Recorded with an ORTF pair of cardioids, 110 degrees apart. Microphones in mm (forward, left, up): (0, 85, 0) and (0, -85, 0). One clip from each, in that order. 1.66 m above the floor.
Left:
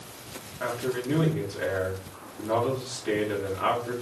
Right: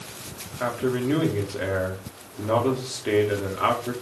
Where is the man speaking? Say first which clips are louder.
Right 4 dB; 35° right, 1.8 m.